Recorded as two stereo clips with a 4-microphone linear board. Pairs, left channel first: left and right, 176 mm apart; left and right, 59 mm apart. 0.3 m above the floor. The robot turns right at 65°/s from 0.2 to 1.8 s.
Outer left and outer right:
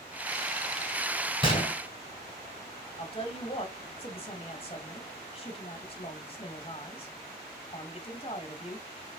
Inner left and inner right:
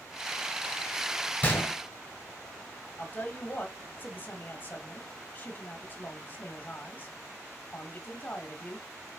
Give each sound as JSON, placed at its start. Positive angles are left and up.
{"t": 1.4, "sound": "a gunshot", "side_deg": 30, "distance_m": 1.5}
{"t": 3.0, "sound": "a woman speaking", "side_deg": 35, "distance_m": 1.3}